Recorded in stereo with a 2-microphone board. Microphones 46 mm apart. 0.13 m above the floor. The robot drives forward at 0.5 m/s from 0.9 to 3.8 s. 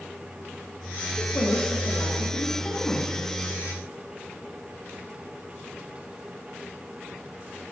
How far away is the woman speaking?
About 5.5 m.